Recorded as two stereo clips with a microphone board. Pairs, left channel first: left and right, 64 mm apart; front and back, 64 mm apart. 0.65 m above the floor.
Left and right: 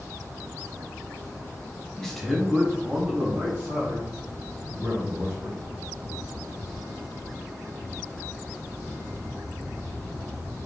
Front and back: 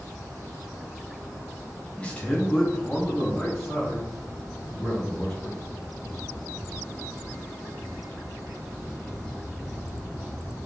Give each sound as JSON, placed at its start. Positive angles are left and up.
{"t": 2.0, "sound": "a man speaking", "azimuth_deg": 25, "distance_m": 0.8}